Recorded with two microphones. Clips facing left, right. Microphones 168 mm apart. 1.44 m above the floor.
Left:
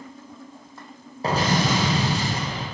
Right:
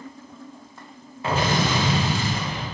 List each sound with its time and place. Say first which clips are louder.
1.2 s an explosion: left 1 dB; 35° left (ahead or behind), 0.6 m